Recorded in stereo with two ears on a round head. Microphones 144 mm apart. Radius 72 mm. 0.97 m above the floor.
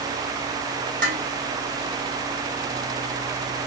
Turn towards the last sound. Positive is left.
turn(degrees=-55)  # may be behind; listen again after turning